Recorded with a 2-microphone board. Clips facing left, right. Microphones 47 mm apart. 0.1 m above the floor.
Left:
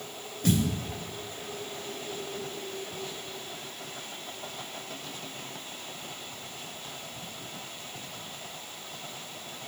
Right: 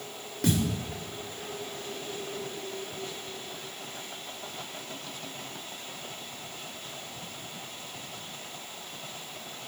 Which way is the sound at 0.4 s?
85° right.